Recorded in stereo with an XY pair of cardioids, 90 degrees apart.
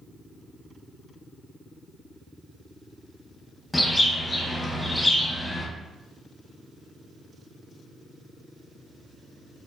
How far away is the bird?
About 0.9 m.